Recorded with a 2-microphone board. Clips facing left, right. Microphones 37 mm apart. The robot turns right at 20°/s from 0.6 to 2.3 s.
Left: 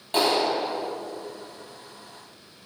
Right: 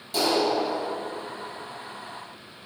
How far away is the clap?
About 3.5 m.